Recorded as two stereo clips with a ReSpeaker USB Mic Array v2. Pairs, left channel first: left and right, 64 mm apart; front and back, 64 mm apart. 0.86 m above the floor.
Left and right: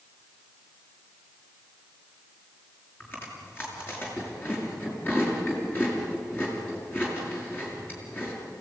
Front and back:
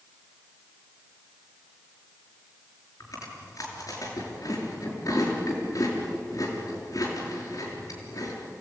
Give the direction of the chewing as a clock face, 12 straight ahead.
11 o'clock.